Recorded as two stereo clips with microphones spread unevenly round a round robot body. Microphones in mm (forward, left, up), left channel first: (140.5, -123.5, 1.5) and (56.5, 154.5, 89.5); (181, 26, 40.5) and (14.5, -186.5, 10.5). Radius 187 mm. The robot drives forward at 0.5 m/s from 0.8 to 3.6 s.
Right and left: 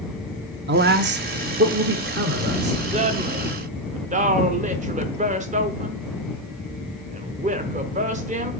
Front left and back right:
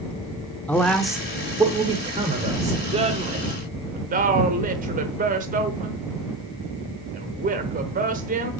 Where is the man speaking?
145° left, 0.9 m; by 2.8 s 170° left, 1.5 m.